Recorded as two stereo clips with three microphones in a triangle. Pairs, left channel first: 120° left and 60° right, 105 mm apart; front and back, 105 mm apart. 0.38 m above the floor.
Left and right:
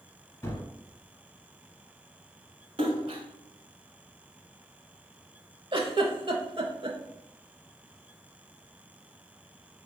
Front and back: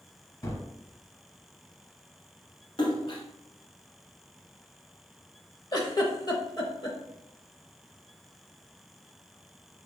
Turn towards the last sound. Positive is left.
turn(degrees=-40)